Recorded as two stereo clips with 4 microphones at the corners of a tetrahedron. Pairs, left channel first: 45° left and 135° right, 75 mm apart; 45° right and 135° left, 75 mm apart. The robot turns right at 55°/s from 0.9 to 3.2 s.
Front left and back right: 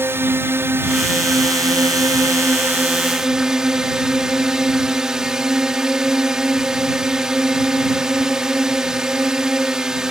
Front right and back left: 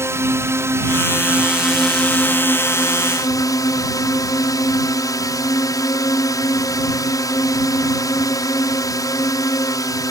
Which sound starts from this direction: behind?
A drone, at 0.0 s.